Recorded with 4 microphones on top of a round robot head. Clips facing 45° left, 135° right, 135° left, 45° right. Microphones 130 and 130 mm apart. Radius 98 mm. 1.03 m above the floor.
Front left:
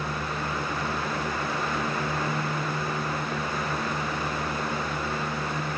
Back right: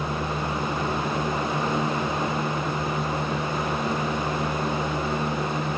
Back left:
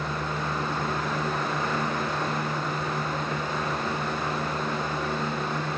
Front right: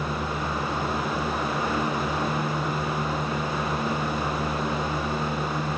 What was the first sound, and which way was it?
Only background noise.